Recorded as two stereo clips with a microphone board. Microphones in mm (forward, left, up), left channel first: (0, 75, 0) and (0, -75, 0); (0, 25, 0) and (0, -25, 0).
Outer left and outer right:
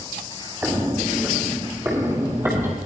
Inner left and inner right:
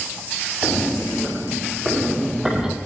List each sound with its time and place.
0.6 s footsteps: 10° right (ahead or behind), 1.7 m; by 2.8 s 15° right (ahead or behind), 3 m